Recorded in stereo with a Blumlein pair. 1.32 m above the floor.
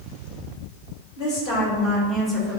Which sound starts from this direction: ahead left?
A woman speaking, at 1.2 s.